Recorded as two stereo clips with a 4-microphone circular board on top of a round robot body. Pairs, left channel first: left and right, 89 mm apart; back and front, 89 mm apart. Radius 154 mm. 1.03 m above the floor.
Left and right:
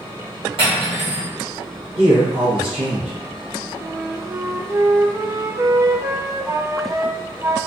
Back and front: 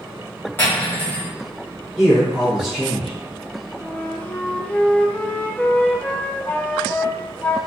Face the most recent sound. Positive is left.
turn(degrees=-115)